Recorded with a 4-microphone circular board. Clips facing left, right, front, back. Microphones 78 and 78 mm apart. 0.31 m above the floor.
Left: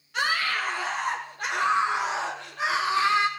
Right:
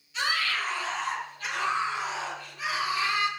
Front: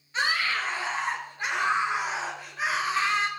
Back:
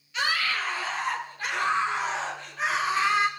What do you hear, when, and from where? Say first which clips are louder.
0.1 s a scream: left 3 dB, front 1 dB; 55° left, 5.5 m; by 3.3 s 95° left, 4 m